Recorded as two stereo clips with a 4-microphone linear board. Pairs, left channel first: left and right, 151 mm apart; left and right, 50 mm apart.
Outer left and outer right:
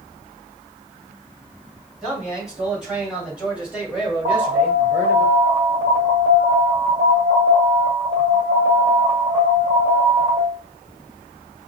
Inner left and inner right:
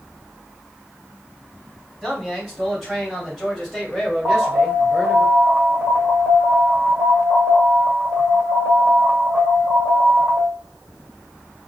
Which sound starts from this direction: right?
An alarm, at 4.2 s.